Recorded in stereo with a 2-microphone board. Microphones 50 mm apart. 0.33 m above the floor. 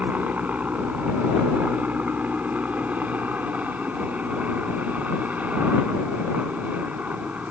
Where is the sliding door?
I don't hear a sliding door.